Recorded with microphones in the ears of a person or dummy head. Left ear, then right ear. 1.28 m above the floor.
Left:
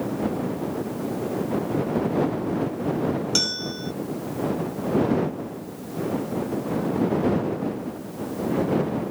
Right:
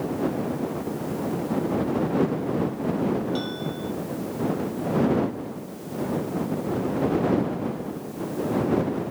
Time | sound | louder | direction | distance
3.4 | a bell | left 5 dB | 65° left (ahead or behind) | ?